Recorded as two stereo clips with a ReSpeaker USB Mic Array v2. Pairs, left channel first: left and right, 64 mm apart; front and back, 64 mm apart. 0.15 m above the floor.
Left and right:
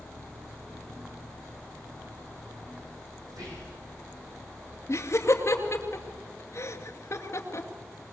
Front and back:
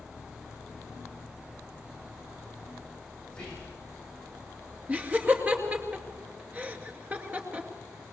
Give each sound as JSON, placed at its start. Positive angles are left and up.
{"t": 3.3, "sound": "whispering", "azimuth_deg": -75, "distance_m": 8.0}
{"t": 4.9, "sound": "laughter", "azimuth_deg": 120, "distance_m": 2.5}